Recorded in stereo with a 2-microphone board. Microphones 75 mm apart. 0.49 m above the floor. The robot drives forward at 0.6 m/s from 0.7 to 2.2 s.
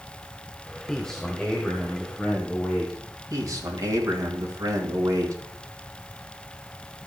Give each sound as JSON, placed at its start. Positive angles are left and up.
{"t": 0.9, "sound": "a man speaking", "side_deg": 10, "distance_m": 1.3}
{"t": 3.3, "sound": "a man speaking", "side_deg": -50, "distance_m": 3.0}